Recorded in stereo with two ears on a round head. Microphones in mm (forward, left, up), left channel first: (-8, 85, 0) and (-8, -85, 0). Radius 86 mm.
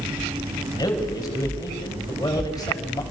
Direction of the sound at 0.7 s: 20° left (ahead or behind).